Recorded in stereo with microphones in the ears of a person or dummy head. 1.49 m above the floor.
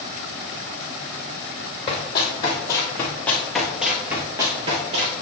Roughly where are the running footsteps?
Left.